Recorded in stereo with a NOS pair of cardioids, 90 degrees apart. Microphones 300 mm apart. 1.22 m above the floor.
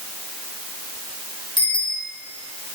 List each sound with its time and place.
1.6 s a bicycle bell: 15° left, 5 m